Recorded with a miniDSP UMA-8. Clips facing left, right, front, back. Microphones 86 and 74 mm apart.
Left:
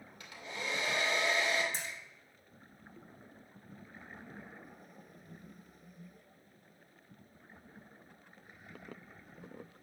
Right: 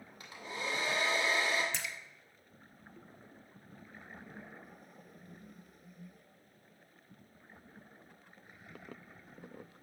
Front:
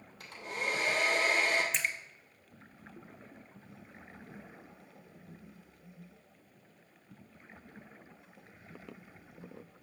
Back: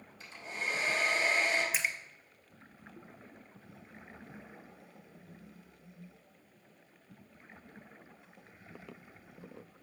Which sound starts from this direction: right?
A splash, at 1.7 s.